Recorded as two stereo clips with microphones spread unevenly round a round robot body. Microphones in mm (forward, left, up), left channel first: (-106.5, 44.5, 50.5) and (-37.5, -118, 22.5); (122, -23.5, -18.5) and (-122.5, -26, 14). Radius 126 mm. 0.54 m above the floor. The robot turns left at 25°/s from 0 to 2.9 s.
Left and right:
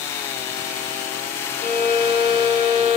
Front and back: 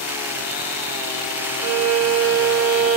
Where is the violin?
155° left, 0.6 m; by 3.0 s 120° left, 0.6 m.